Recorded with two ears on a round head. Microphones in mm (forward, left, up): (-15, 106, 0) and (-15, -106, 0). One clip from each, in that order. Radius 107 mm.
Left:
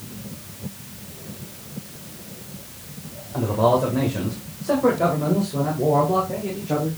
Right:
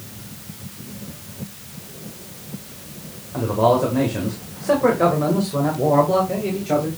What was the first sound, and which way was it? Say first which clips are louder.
A man speaking: right 2 dB; centre (ahead or behind).